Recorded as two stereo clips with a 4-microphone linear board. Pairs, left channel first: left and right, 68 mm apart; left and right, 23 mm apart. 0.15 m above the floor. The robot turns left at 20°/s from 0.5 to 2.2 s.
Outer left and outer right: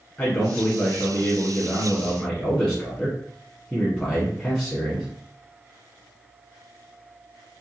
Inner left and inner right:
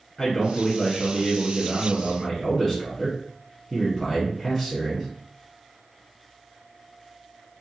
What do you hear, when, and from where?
0.2 s a man speaking: 20° left (ahead or behind), 1.1 m; by 5.1 s 5° left (ahead or behind), 1.1 m